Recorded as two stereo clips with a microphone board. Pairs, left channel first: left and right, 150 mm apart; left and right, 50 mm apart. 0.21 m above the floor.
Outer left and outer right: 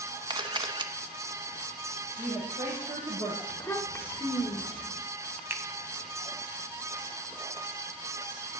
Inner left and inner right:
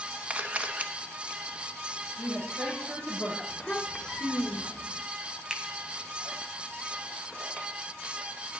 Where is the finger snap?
10° right (ahead or behind), 1.0 m.